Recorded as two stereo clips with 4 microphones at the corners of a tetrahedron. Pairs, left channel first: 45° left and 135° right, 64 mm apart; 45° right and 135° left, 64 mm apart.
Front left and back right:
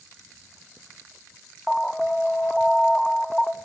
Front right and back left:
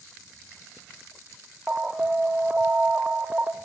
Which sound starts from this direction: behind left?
An alarm, at 1.7 s.